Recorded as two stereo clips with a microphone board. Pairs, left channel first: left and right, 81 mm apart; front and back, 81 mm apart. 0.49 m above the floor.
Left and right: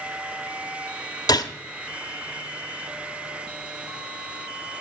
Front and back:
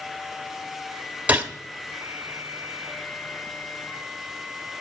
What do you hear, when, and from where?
1.3 s a gunshot: 110° left, 1.1 m